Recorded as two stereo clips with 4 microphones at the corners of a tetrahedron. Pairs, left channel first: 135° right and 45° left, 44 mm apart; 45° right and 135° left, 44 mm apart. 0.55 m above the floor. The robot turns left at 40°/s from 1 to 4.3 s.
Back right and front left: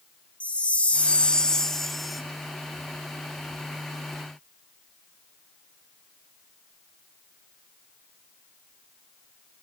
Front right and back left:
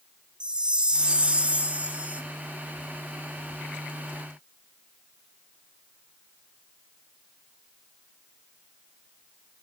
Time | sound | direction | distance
0.4 | a chime | 175° right | 0.5 m